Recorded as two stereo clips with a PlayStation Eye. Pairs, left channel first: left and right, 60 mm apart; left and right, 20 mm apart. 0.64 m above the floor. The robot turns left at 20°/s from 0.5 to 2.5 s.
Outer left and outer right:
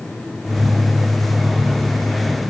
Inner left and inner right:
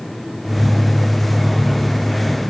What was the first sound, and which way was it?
Only background noise.